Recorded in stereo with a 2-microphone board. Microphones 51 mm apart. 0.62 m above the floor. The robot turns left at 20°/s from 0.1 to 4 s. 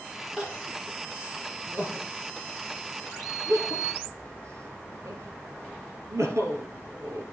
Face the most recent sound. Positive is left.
turn(degrees=-75)  # may be behind; listen again after turning